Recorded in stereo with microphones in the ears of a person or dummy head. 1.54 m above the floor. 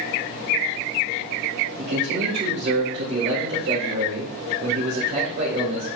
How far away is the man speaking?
About 1.5 m.